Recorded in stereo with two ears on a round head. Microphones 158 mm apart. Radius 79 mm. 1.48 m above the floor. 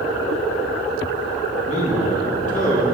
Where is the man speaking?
40° left (ahead or behind), 2 m; by 2.9 s 45° left (ahead or behind), 3 m.